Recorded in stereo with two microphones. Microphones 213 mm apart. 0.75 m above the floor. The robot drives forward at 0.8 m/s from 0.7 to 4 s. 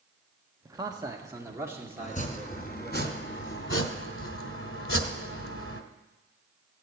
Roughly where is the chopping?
Left.